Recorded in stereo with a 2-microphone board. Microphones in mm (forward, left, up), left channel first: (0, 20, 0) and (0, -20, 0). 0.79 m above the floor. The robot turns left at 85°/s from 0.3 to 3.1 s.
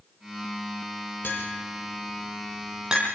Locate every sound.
1.2 s tapping: 60° left (ahead or behind), 8.5 m; by 3.0 s 30° right (ahead or behind), 8.5 m